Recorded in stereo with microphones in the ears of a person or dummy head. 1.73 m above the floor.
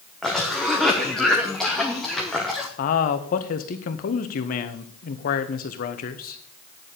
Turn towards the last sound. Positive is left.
turn(degrees=50)  # may be behind; listen again after turning